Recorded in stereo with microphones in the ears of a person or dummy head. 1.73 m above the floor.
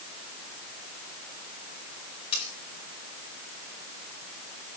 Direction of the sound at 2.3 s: 30° left (ahead or behind).